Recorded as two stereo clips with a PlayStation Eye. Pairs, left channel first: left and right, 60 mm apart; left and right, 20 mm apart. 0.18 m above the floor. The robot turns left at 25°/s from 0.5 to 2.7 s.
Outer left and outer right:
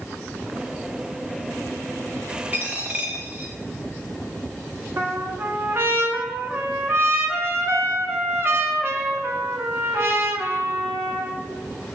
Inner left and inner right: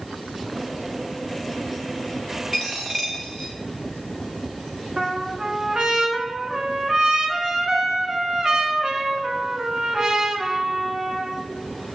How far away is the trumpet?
About 0.8 m.